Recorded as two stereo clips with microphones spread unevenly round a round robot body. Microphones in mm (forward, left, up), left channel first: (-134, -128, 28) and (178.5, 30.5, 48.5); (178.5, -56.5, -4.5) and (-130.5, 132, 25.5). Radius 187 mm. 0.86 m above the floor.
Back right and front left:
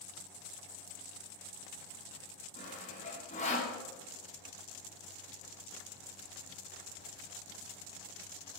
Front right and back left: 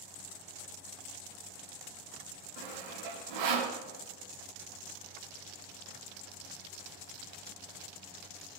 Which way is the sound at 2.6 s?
135° left.